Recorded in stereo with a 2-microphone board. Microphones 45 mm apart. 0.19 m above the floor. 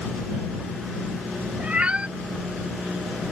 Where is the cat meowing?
25° right (ahead or behind).